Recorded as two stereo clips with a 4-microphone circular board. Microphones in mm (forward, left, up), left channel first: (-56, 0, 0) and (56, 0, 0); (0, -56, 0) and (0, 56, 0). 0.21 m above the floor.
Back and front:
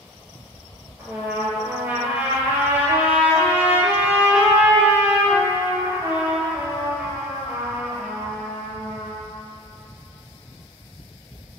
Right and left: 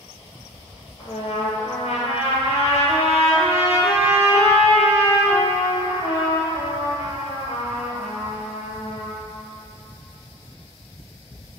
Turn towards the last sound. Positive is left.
turn(degrees=-75)